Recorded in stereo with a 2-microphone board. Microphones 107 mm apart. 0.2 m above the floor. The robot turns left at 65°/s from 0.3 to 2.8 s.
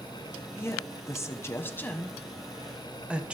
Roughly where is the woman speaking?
Left.